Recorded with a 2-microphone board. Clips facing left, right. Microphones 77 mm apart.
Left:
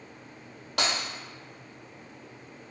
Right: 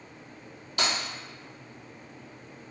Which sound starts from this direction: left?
Breaking glass, at 0.8 s.